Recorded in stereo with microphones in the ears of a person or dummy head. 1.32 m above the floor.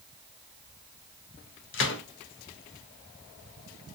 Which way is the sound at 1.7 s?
55° left (ahead or behind).